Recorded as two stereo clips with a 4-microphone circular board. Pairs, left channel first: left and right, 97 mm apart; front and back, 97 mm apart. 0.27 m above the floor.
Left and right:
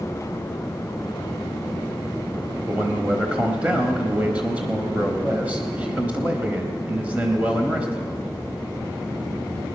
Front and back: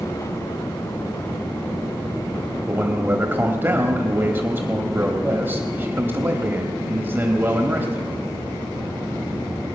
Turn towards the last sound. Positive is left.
turn(degrees=-150)